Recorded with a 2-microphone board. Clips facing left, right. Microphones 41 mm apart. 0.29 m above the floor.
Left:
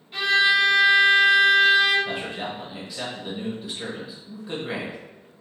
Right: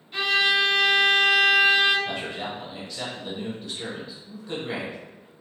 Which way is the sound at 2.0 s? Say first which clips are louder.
Left 1 dB; 10° left (ahead or behind).